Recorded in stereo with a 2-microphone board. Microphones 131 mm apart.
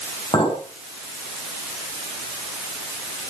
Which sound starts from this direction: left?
A clink, at 0.3 s.